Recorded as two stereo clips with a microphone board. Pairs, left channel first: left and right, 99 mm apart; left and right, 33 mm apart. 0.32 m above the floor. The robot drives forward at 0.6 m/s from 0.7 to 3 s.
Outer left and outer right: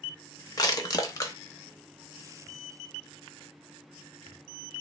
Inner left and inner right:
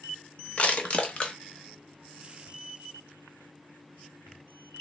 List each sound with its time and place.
0.6 s crushing: 35° left (ahead or behind), 0.7 m; by 1.4 s 30° left (ahead or behind), 0.8 m